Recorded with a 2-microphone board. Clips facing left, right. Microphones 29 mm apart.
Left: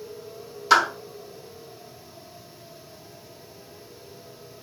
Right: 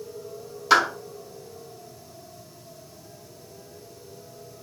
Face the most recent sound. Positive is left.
turn(degrees=-5)  # may be behind; listen again after turning